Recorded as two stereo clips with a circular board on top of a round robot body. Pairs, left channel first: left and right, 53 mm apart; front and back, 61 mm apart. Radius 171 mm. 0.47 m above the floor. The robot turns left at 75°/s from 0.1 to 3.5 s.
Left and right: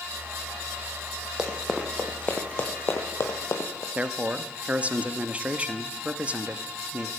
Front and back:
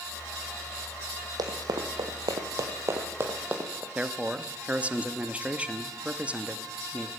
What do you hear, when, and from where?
1.4 s running footsteps: 170° right, 1.4 m; by 3.9 s 120° left, 1.5 m
4.0 s a man speaking: 130° right, 1.0 m